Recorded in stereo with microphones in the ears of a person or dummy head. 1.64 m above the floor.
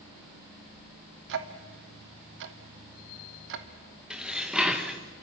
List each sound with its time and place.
1.3 s ticking: 65° right (ahead or behind), 1.4 m
4.1 s dishes clattering: 5° right (ahead or behind), 1.2 m